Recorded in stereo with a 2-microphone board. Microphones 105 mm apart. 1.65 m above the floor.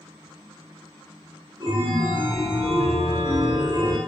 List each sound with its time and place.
1.6 s a chime: 40° right (ahead or behind), 1.0 m